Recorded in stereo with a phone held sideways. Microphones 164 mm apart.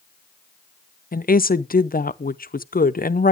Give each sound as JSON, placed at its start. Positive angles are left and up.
{"t": 1.1, "sound": "a woman speaking", "side_deg": 60, "distance_m": 0.6}